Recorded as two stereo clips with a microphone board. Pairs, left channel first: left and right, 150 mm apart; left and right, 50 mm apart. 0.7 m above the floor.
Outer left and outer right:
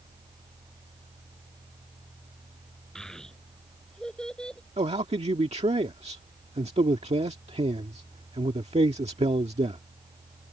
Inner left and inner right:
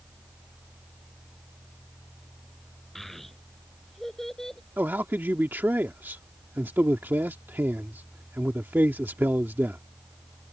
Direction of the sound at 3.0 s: 5° left (ahead or behind).